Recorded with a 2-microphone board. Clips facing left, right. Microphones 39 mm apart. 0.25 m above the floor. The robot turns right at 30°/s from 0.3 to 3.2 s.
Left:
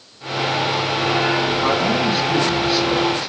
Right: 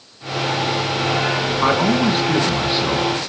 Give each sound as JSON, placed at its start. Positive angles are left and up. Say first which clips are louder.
{"t": 1.6, "sound": "a man speaking", "louder": "right 2 dB", "azimuth_deg": -65, "distance_m": 3.0}